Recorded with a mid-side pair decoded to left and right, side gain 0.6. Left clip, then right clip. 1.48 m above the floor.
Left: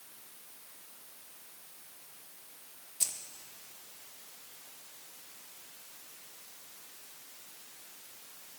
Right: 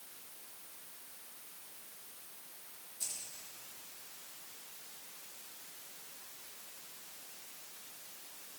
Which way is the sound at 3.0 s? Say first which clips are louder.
Left 8 dB; 55° left.